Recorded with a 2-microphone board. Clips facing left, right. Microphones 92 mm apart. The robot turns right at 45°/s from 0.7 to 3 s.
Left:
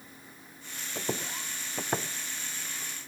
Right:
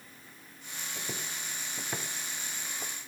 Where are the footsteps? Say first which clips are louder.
Left 8 dB; 55° left (ahead or behind), 1.1 m; by 3.0 s 60° right (ahead or behind), 0.8 m.